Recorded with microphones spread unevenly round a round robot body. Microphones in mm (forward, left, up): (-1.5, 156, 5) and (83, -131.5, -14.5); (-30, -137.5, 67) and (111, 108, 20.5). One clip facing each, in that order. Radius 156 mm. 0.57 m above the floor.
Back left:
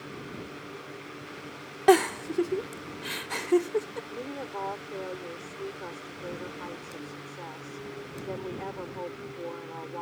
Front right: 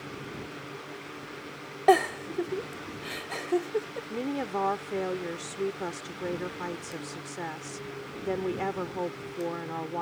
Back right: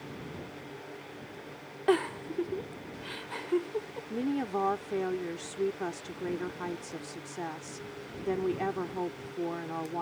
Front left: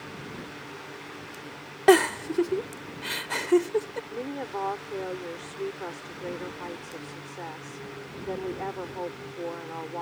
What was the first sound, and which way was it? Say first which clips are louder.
A giggle: back left 3 dB, front left 8 dB; 50° left.